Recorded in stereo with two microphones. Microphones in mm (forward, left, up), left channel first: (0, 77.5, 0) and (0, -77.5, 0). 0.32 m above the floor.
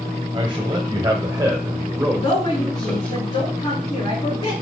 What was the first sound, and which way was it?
A man speaking, 35° right (ahead or behind).